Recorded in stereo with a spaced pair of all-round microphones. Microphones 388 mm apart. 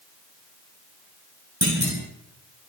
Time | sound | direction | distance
1.6 | a clunk | 45° right (ahead or behind) | 7.5 m